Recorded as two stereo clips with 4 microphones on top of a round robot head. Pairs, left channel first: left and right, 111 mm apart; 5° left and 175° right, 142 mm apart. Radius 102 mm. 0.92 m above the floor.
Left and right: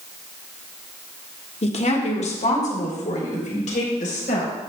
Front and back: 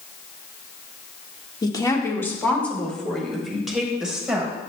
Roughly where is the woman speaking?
Ahead left.